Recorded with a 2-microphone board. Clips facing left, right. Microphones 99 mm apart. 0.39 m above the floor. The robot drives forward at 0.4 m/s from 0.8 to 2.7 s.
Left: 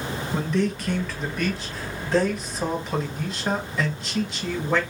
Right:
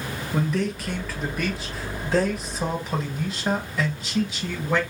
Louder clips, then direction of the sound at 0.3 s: Even; 5° right (ahead or behind).